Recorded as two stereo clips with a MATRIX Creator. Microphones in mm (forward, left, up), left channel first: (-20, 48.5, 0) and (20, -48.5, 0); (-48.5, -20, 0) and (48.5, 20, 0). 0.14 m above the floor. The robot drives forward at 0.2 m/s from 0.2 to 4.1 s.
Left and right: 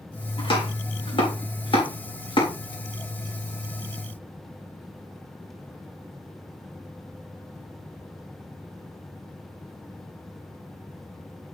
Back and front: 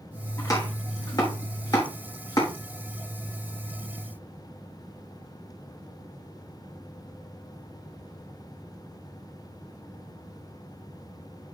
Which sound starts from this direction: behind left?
Chopping, at 0.4 s.